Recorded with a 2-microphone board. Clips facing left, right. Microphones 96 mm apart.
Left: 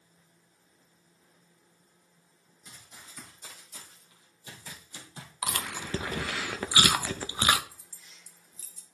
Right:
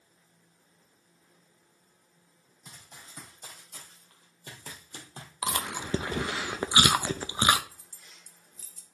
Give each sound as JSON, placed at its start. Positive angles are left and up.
{"t": 2.6, "sound": "running footsteps", "side_deg": -65, "distance_m": 4.0}
{"t": 5.4, "sound": "chewing", "side_deg": -25, "distance_m": 0.6}
{"t": 7.7, "sound": "keys jangling", "side_deg": -55, "distance_m": 1.1}